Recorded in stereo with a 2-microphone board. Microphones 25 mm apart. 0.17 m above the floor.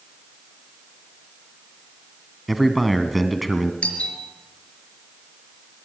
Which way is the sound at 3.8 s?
60° left (ahead or behind).